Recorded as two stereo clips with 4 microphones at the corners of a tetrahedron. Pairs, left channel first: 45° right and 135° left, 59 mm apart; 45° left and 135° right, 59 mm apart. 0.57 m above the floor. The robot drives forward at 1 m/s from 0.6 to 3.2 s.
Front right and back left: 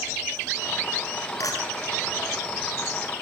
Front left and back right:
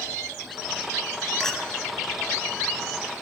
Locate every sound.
1.4 s a clink: 35° right, 3.5 m